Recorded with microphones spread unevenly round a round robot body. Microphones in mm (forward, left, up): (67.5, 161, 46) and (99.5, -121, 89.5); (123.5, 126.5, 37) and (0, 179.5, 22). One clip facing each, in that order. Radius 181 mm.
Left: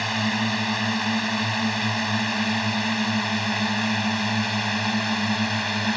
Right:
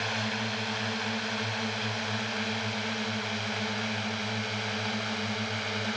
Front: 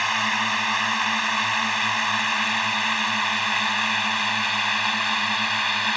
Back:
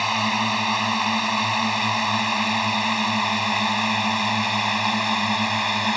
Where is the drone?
95° left; by 6.0 s 105° left.